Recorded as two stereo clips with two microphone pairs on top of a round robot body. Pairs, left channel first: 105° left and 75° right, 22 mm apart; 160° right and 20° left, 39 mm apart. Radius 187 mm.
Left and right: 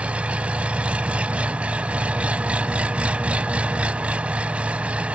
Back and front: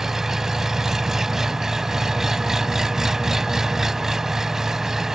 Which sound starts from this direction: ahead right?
An engine running, at 0.0 s.